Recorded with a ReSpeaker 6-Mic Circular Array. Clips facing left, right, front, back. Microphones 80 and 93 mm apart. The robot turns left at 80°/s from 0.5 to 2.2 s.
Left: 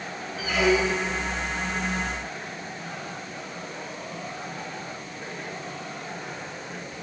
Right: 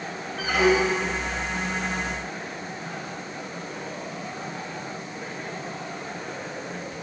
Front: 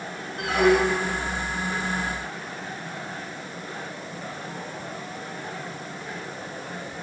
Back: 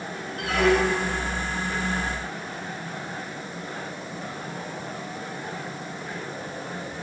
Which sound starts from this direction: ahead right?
A squeak, at 0.4 s.